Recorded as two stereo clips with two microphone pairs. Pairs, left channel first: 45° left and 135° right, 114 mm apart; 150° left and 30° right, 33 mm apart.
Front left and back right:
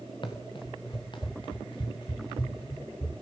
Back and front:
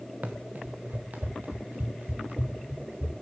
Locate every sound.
0.2 s running footsteps: straight ahead, 1.8 m